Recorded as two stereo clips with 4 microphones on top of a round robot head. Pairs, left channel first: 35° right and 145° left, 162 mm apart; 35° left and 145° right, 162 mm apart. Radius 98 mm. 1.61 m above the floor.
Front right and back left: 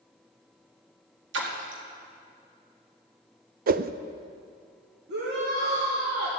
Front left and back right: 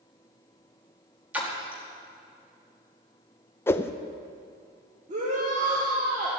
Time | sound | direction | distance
1.3 | a splash | 135° left | 1.9 m
3.7 | a whoosh | 110° left | 0.5 m
5.1 | a shout | 170° left | 2.0 m